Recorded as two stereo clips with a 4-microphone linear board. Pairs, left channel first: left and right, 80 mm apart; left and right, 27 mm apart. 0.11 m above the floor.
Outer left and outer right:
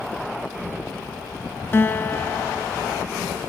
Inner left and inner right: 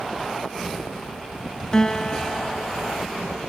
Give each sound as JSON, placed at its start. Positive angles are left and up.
{"t": 1.7, "sound": "a guitar", "side_deg": 30, "distance_m": 0.6}